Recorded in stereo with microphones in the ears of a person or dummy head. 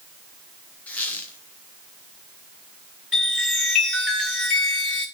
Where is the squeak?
5° left (ahead or behind), 1.2 m.